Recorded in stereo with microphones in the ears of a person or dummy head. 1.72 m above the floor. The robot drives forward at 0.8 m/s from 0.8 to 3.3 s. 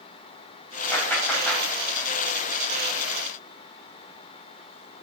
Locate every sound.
0.9 s a clap: 10° left (ahead or behind), 4.5 m